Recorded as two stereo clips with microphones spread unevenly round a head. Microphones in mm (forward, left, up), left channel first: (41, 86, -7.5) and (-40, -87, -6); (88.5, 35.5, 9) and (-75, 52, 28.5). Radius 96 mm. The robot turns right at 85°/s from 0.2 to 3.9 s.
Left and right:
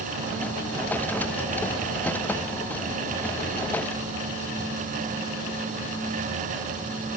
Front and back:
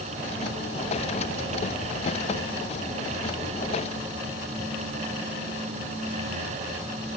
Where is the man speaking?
I don't hear a man speaking.